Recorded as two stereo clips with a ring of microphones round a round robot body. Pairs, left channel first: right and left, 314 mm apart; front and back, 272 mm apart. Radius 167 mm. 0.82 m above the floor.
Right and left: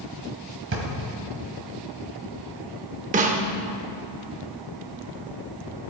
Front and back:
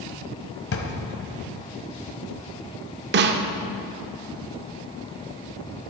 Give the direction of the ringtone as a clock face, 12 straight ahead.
No ringtone in this recording.